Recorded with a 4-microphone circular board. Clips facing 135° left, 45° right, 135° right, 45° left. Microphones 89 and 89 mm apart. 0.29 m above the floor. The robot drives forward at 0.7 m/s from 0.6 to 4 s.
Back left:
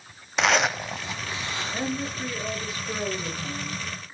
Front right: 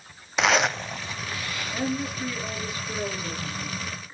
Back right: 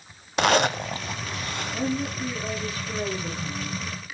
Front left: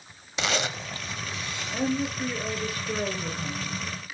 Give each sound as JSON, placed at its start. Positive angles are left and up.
{"t": 0.4, "sound": "a zipper", "azimuth_deg": -135, "distance_m": 0.5}
{"t": 1.7, "sound": "a woman speaking", "azimuth_deg": 65, "distance_m": 5.5}